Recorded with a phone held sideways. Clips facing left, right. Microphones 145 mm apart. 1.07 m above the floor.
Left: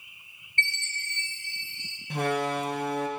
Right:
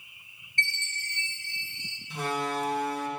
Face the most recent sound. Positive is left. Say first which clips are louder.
# left 4 dB
turn(degrees=65)  # may be behind; listen again after turning